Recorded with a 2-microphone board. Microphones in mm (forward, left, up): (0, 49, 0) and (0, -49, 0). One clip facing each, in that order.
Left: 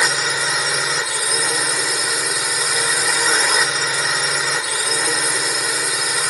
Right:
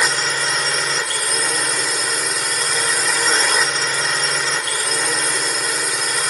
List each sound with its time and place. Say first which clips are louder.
0.0 s a drone: even; 5° left (ahead or behind)